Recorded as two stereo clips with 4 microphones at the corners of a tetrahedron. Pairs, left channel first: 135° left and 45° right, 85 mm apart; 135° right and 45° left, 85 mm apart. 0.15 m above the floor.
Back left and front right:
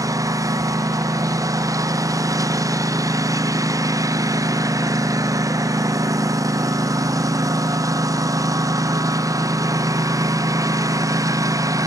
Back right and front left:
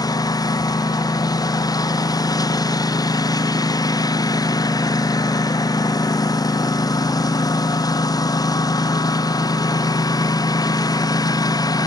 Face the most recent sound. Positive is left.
turn(degrees=-90)